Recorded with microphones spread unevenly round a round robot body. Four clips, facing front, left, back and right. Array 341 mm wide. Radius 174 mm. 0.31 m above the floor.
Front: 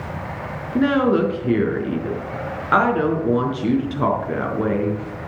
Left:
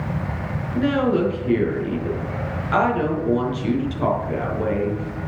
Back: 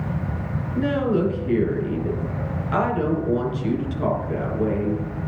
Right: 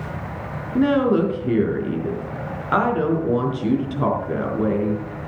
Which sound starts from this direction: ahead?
A woman speaking, at 0.8 s.